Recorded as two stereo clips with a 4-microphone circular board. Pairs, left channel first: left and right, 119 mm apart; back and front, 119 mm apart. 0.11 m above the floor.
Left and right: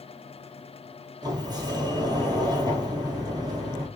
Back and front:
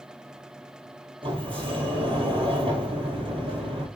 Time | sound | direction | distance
1.2 | a sliding door | 40° right | 1.3 m